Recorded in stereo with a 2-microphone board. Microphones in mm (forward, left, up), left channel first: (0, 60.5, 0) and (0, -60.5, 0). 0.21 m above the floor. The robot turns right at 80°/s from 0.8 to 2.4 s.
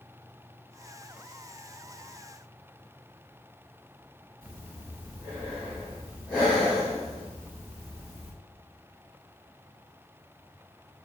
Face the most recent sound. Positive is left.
turn(degrees=10)  # may be behind; listen again after turning